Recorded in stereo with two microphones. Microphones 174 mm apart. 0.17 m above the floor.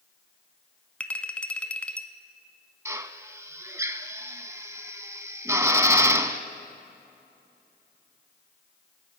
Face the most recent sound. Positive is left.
turn(degrees=-15)  # may be behind; listen again after turning